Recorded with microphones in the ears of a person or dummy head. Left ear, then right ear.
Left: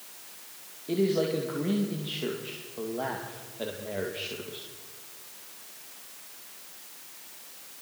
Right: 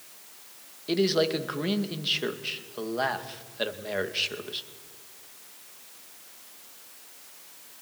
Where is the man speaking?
65° right (ahead or behind), 2 m.